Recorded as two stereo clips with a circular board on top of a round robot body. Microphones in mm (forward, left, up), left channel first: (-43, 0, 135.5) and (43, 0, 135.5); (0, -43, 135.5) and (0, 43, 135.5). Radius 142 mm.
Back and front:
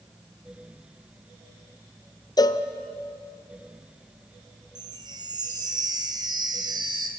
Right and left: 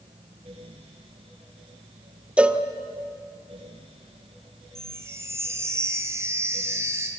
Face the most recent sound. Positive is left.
turn(degrees=30)